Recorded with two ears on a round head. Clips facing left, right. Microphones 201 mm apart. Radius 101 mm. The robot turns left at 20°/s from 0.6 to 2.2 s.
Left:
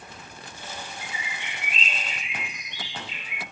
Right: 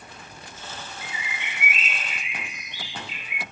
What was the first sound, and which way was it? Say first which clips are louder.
A bird: even; 20° right (ahead or behind).